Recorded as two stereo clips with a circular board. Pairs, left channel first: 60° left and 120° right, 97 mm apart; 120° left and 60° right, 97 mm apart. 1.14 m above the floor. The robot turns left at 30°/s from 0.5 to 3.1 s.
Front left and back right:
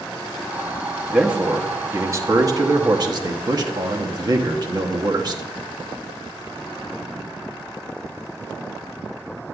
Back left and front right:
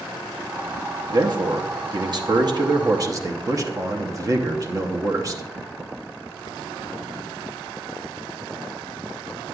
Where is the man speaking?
40° right, 0.8 m; by 5.4 s 100° right, 0.8 m.